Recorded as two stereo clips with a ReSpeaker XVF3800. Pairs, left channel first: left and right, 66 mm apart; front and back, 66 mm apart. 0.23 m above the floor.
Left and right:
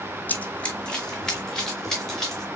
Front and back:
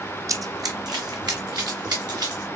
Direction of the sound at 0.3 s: 150° left.